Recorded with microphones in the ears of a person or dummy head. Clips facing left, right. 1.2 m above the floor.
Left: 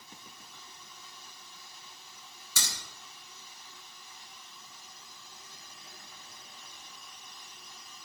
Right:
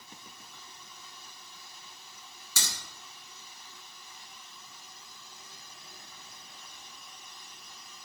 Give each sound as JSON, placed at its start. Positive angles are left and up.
{"t": 2.6, "sound": "a crack", "side_deg": -70, "distance_m": 1.8}